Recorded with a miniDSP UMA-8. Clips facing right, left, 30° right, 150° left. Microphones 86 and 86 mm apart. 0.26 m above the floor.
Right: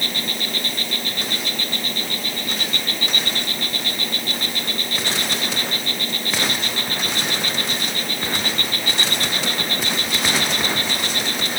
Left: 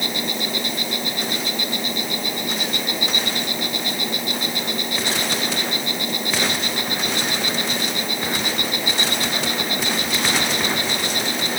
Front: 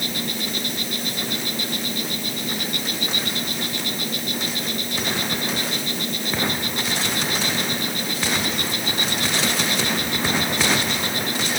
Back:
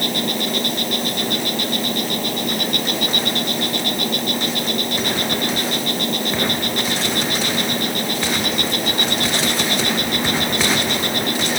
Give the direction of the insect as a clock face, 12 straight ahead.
7 o'clock.